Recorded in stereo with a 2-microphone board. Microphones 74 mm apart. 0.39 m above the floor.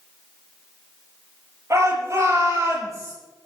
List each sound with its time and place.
1.7 s a shout: 40° right (ahead or behind), 8 m